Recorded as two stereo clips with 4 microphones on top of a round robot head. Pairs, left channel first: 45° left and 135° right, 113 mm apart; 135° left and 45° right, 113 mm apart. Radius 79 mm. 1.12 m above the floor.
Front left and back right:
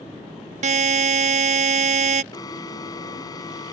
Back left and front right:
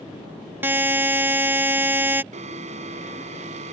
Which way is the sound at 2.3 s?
15° right.